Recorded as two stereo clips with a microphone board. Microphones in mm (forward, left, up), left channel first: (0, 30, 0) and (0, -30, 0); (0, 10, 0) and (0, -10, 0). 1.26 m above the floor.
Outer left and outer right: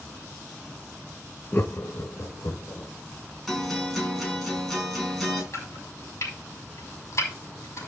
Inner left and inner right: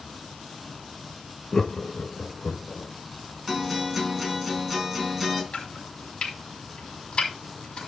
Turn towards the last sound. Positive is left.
turn(degrees=55)  # may be behind; listen again after turning